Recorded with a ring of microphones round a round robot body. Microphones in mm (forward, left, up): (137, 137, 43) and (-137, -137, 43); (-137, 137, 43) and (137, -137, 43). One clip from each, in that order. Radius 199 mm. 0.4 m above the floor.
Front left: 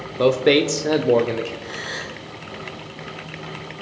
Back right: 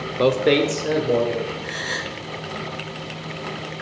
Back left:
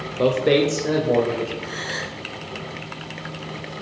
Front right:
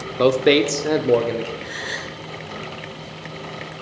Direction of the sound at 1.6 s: 70° right.